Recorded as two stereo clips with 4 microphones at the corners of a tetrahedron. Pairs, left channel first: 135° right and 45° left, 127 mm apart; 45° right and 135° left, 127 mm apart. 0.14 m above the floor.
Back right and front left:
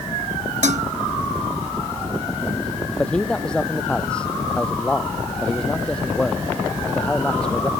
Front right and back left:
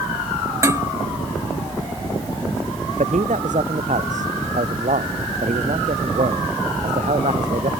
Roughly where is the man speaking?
Behind left.